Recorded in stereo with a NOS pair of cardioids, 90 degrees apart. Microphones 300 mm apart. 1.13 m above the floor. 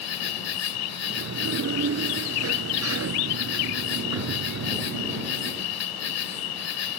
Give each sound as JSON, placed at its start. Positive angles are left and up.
{"t": 0.0, "sound": "an insect", "azimuth_deg": 60}
{"t": 1.0, "sound": "a sliding door", "azimuth_deg": -50}